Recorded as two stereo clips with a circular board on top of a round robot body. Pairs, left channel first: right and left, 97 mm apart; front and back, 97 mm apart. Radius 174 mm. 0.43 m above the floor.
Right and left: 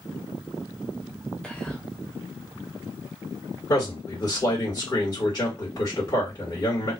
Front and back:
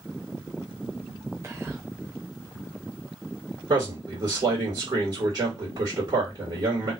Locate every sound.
1.4 s whispering: 160° right, 0.8 m
3.7 s a man speaking: 140° right, 1.8 m